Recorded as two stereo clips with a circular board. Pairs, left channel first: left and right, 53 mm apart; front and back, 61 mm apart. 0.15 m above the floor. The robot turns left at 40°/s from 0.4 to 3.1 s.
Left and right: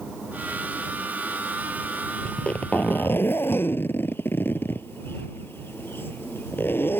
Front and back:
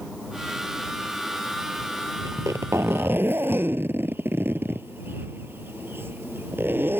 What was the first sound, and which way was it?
A zipper, 165° left.